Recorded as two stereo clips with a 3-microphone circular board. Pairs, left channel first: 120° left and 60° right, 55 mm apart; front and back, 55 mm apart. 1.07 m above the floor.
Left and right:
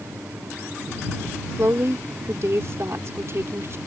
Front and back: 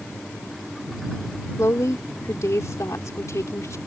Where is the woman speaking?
25° right.